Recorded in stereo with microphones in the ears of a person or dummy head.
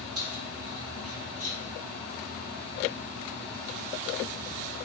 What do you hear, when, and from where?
0.1 s keys jangling: 80° right, 3 m; by 1.6 s 75° right (ahead or behind), 2.5 m